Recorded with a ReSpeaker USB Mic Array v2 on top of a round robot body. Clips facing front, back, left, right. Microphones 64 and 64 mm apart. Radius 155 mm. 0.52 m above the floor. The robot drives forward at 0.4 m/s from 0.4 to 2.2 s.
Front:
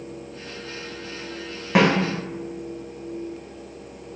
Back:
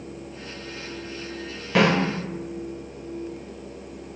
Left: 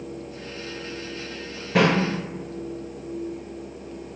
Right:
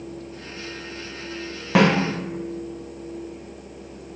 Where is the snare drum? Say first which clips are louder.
Front 2 dB, right 2 dB; 65° right, 1.2 m; by 1.9 s 70° right, 1.1 m.